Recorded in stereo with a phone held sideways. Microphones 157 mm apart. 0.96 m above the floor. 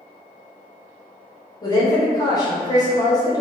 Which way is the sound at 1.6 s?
25° left (ahead or behind).